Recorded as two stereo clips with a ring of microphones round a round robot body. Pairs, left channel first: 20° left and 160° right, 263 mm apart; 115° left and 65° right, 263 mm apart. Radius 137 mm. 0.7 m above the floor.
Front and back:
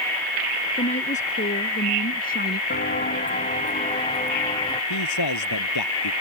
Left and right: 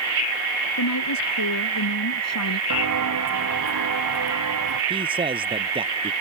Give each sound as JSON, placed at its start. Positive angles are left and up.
{"t": 0.8, "sound": "a woman speaking", "azimuth_deg": 90}
{"t": 2.7, "sound": "footsteps", "azimuth_deg": -35}
{"t": 4.9, "sound": "a man speaking", "azimuth_deg": 5}